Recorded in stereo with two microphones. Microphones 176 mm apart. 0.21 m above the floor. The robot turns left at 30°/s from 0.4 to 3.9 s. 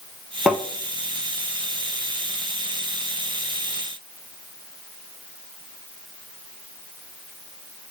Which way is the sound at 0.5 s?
5° right (ahead or behind).